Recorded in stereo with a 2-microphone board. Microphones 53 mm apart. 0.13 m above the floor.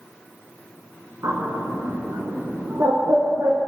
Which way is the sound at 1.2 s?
60° right (ahead or behind).